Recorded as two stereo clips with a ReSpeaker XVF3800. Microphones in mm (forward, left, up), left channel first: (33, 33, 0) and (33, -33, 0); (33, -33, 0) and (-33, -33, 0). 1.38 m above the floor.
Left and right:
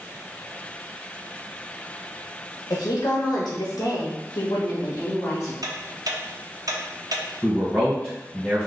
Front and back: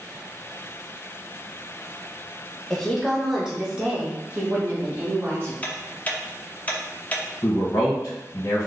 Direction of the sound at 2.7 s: 85° left.